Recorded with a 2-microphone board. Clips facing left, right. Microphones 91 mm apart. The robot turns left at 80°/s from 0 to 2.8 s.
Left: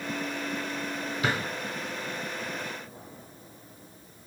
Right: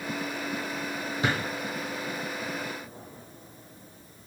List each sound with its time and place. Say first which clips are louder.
1.2 s a drawer: right 1 dB; 30° right (ahead or behind), 1.7 m; by 1.4 s 20° right (ahead or behind), 1.7 m